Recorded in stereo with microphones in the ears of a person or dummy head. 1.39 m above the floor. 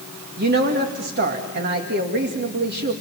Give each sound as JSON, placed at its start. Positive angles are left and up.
{"t": 0.4, "sound": "a woman speaking", "side_deg": -50, "distance_m": 2.0}